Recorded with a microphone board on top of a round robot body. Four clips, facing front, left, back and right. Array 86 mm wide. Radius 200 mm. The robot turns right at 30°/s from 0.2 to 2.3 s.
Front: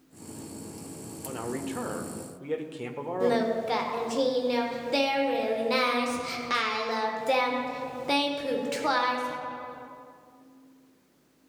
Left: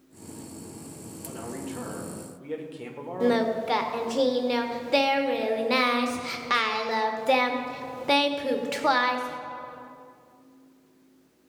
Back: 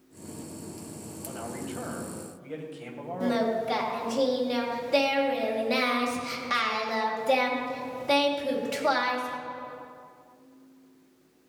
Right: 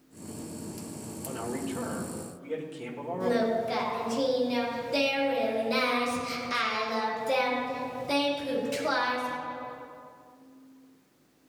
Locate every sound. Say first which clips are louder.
1.2 s a man speaking: right 2 dB, front 4 dB; 20° right, 2 m; by 3.8 s 10° left, 2 m
3.2 s singing: left 3 dB, front 1 dB; 85° left, 1.8 m